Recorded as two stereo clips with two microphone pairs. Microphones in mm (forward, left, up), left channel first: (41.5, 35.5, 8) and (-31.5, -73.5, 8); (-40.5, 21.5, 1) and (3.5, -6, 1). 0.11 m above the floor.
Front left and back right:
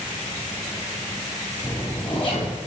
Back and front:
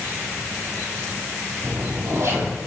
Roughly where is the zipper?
Ahead.